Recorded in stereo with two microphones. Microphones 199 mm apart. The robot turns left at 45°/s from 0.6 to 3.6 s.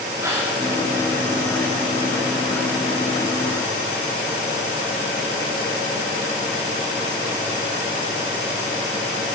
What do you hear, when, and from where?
0.2 s a gasp: 15° right (ahead or behind), 6.5 m